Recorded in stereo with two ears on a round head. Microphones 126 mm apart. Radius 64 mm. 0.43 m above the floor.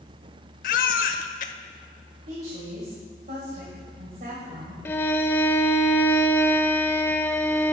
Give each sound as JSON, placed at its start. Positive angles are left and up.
{"t": 0.6, "sound": "a baby crying", "side_deg": 65, "distance_m": 0.7}
{"t": 2.3, "sound": "a woman speaking", "side_deg": -60, "distance_m": 1.8}
{"t": 4.8, "sound": "a violin", "side_deg": 15, "distance_m": 0.6}